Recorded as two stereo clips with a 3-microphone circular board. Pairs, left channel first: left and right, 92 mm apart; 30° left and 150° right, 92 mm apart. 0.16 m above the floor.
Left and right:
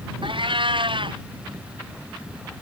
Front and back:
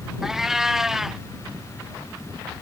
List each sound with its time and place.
0.2 s a cat meowing: 65° right